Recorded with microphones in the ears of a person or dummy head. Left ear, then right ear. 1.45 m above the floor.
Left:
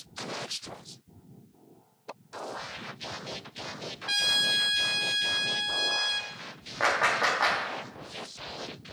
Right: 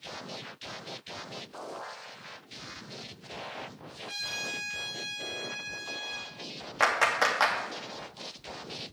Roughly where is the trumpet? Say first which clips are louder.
Left 10 dB; left.